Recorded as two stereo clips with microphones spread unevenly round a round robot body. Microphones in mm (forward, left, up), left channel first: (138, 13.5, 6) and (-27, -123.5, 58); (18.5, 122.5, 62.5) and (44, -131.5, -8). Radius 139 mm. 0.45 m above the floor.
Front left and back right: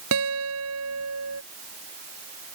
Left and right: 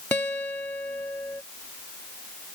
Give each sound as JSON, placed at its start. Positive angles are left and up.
{"t": 0.1, "sound": "a guitar", "azimuth_deg": 180}